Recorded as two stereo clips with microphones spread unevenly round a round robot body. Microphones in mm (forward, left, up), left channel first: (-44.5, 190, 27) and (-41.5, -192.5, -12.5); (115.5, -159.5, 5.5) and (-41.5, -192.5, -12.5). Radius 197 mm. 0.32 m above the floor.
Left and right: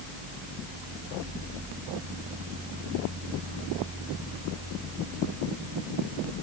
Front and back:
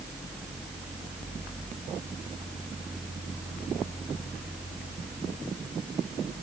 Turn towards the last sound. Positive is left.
No sound to turn to.